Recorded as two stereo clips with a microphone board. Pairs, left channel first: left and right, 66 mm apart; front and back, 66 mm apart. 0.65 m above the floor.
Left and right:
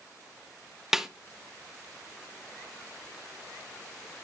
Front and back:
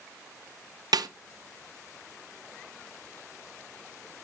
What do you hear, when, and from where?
0.9 s a snare drum: 175° right, 0.5 m